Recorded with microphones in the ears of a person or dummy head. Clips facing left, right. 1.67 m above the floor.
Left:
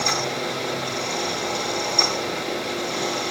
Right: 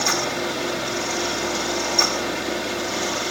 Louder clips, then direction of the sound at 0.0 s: Right 1 dB; 5° right (ahead or behind).